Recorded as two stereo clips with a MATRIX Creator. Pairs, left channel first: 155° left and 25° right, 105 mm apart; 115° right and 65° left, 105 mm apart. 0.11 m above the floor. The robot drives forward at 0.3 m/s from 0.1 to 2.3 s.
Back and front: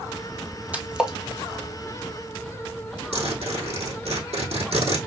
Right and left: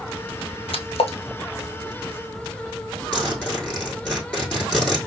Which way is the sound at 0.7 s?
95° right.